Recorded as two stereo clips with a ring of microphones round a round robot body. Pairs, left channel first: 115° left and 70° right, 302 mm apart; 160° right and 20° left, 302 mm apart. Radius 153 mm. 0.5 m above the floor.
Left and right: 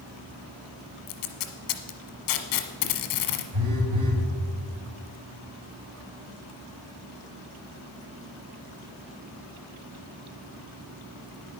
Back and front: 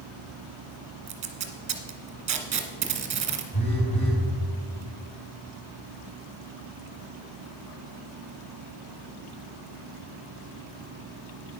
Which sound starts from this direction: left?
Tape being pulled, at 1.1 s.